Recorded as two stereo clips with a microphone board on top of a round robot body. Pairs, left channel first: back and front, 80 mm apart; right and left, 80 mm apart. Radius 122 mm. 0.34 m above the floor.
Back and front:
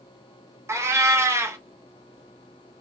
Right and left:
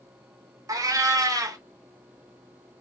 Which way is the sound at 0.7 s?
50° left.